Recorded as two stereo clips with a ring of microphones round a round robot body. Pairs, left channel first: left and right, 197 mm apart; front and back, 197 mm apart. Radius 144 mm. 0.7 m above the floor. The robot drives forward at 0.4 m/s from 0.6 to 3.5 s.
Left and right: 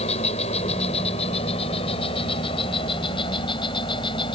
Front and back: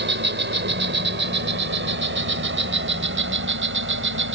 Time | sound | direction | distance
0.0 | an insect | 155° left | ?